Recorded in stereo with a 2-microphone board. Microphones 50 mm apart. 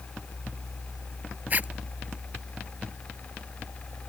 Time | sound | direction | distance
1.5 | a zipper | 35° right (ahead or behind) | ?